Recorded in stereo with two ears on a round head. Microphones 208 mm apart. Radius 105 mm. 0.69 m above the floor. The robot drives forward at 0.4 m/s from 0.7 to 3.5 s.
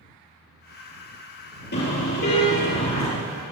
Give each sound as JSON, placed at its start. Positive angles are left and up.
{"t": 1.7, "sound": "a car horn", "side_deg": 50, "distance_m": 7.5}